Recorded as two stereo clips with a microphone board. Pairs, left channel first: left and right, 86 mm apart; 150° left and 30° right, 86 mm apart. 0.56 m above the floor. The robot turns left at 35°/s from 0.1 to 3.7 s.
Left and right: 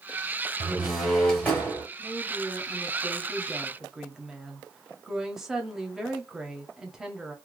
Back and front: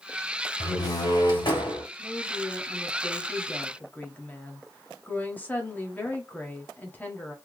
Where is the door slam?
165° right, 2.0 m; by 1.8 s 155° left, 2.0 m.